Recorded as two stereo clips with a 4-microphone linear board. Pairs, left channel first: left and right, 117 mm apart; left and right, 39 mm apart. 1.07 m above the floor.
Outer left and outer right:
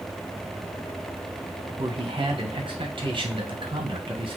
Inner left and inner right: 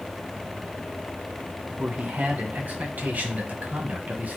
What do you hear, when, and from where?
1.8 s a man speaking: 45° right (ahead or behind), 1.3 m